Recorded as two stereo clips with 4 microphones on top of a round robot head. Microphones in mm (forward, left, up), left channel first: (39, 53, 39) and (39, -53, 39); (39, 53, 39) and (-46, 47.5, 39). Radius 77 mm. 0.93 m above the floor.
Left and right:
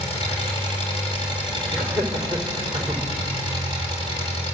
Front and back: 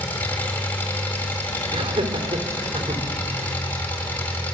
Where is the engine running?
70° left, 5.5 m.